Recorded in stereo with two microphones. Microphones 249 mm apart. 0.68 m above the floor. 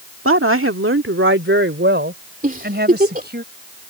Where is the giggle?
35° right (ahead or behind).